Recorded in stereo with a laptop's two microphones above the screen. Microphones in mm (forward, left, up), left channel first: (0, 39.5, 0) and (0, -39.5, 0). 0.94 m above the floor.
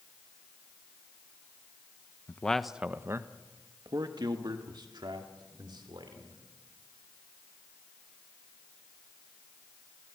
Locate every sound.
2.3 s a man speaking: 25° left (ahead or behind), 0.8 m; by 6.4 s 80° right, 3.5 m